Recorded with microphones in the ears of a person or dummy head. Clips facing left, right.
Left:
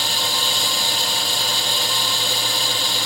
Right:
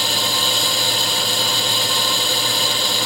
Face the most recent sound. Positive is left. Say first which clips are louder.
# right 3 dB
turn(degrees=-70)  # may be behind; listen again after turning